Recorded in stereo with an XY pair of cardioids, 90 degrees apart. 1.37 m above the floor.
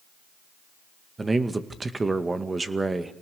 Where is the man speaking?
25° right, 2.0 m.